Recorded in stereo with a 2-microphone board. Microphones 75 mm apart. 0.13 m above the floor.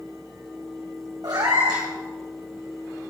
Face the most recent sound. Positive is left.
turn(degrees=-60)  # may be behind; listen again after turning